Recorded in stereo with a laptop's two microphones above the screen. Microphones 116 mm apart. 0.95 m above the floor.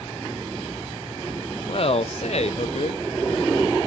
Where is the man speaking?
50° left (ahead or behind), 0.6 m; by 3.8 s 65° left (ahead or behind), 1.6 m.